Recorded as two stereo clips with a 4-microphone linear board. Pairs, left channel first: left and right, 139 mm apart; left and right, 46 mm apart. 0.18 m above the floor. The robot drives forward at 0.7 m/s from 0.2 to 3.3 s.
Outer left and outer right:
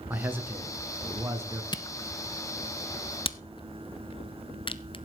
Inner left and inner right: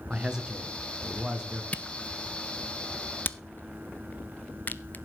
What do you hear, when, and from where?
0.1 s a man speaking: 15° right (ahead or behind), 2.5 m; by 1.6 s 20° right (ahead or behind), 2 m
1.7 s a camera shutter: 35° left (ahead or behind), 0.8 m; by 5.0 s 40° left (ahead or behind), 0.7 m